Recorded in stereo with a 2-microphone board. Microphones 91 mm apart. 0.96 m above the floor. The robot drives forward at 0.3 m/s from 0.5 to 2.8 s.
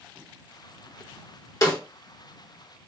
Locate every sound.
1.6 s a snare drum: 40° left (ahead or behind), 1.4 m